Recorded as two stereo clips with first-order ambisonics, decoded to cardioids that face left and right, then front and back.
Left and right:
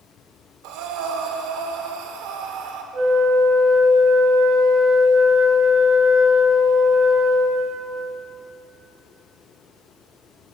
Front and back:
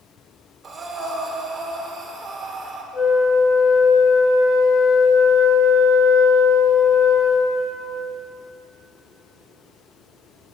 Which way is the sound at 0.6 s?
110° right.